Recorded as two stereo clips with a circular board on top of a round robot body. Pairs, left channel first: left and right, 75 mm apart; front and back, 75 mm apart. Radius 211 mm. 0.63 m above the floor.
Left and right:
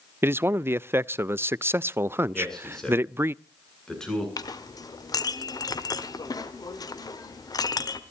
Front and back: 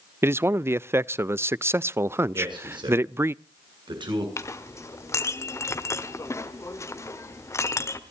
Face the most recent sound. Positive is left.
turn(degrees=55)